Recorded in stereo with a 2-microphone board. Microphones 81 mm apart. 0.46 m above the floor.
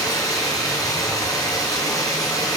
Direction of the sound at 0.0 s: 45° left (ahead or behind).